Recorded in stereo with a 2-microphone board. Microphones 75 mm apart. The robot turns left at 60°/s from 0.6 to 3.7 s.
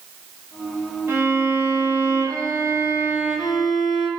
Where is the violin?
40° right, 1.3 m; by 4.1 s 165° left, 1.3 m.